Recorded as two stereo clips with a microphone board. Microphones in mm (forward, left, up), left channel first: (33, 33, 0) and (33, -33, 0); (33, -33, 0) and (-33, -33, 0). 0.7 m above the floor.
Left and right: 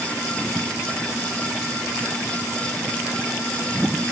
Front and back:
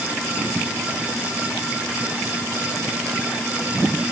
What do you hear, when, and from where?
Only background noise.